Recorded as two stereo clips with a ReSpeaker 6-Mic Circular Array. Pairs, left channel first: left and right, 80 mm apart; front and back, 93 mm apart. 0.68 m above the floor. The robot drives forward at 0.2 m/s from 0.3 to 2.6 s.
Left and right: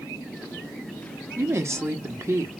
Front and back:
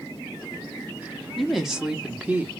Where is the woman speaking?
90° right, 0.7 m; by 2.5 s 120° right, 0.7 m.